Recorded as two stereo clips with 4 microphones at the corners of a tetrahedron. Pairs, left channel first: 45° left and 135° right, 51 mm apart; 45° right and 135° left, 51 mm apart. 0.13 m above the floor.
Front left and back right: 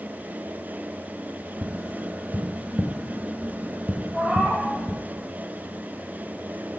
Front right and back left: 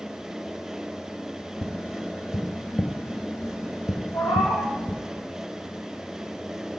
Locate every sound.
1.6 s tapping: 85° right, 0.9 m
4.1 s a cat meowing: 50° right, 1.3 m